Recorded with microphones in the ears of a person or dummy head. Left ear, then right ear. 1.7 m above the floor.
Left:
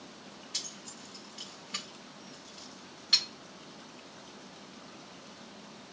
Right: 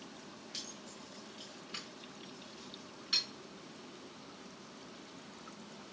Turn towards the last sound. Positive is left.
turn(degrees=15)  # may be behind; listen again after turning